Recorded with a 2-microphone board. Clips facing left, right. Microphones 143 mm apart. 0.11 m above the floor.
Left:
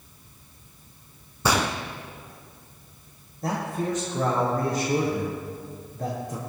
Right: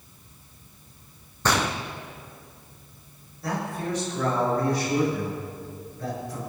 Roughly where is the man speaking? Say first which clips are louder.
Left 2 dB; left.